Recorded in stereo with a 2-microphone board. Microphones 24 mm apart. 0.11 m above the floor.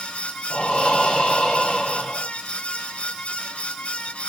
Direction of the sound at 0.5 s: 55° left (ahead or behind).